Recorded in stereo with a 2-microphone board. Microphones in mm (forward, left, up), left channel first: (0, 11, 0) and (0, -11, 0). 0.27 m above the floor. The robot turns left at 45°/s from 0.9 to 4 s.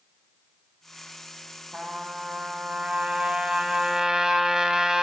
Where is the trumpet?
40° right, 9 m; by 5.0 s 140° right, 9 m.